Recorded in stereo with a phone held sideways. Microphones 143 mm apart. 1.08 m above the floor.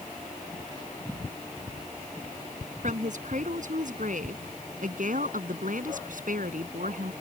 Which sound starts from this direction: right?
A woman speaking, at 2.8 s.